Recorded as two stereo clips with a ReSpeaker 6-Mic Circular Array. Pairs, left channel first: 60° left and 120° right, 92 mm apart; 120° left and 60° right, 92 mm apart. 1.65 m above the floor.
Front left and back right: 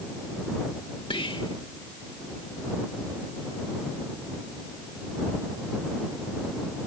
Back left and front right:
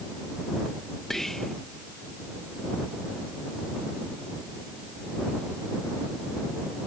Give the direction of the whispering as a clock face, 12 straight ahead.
11 o'clock.